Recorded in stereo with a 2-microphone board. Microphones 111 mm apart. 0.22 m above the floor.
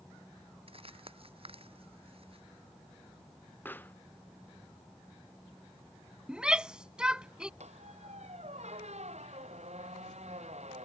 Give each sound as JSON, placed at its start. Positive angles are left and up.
{"t": 0.7, "sound": "crumpling", "side_deg": -55}
{"t": 3.6, "sound": "a pop", "side_deg": 15}
{"t": 6.3, "sound": "a shout", "side_deg": -5}
{"t": 7.6, "sound": "a squeak", "side_deg": -75}